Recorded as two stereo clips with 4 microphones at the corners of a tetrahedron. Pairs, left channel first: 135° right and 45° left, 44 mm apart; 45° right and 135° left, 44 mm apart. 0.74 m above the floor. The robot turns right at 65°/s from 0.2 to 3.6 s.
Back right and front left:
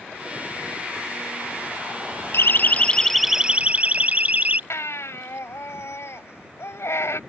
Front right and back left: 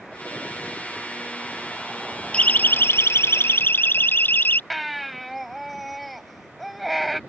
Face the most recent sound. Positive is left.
turn(degrees=-135)